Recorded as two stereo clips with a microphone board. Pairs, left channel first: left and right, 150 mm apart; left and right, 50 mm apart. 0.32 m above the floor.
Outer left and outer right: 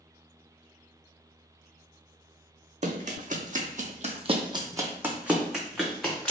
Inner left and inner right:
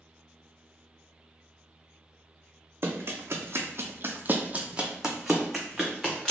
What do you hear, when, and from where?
2.8 s running footsteps: 55° right (ahead or behind), 0.8 m; by 6.3 s 5° left (ahead or behind), 1.3 m